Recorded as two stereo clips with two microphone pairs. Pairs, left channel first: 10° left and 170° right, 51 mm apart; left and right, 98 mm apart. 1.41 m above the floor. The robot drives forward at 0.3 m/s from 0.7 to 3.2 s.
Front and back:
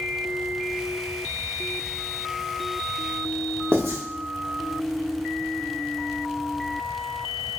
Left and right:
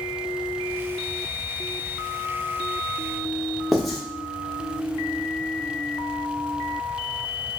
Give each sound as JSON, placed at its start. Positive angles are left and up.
{"t": 3.7, "sound": "writing", "azimuth_deg": 175, "distance_m": 0.9}